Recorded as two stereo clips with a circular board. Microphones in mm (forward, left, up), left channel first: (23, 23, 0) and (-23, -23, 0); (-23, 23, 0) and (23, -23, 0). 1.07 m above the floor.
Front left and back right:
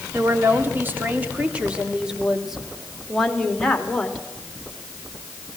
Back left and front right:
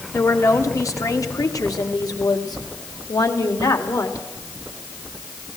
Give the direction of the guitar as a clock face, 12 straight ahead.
I don't hear a guitar.